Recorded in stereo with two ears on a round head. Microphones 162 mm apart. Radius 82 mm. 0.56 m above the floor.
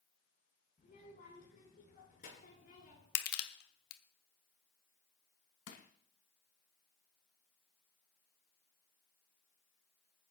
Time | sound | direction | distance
0.8 | a child speaking | 50° left (ahead or behind) | 7 m
3.1 | crushing | 65° left (ahead or behind) | 0.9 m
5.7 | crushing | 65° left (ahead or behind) | 1.8 m